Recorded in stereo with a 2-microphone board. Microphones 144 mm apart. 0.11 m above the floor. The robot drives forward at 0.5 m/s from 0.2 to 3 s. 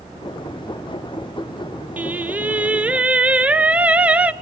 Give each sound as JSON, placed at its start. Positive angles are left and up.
{"t": 2.0, "sound": "singing", "side_deg": -10, "distance_m": 0.6}